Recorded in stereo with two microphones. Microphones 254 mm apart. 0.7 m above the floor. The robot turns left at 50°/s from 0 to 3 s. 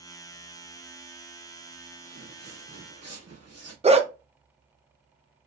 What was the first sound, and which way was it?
Footsteps, 60° right (ahead or behind).